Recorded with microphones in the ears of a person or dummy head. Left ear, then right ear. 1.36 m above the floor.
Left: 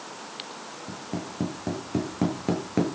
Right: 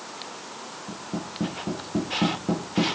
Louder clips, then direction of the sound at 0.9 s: Right 1 dB; 80° left.